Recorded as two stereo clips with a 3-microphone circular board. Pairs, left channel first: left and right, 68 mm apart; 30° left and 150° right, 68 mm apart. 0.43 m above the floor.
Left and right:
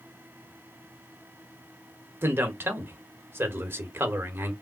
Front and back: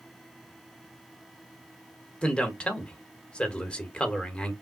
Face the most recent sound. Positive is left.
turn(degrees=-40)